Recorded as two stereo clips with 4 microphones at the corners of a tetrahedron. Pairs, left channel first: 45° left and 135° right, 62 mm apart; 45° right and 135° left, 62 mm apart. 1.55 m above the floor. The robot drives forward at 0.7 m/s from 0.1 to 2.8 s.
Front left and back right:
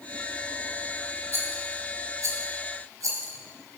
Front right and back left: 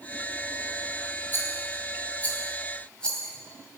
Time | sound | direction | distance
1.3 | a rattle | 95° right | 2.5 m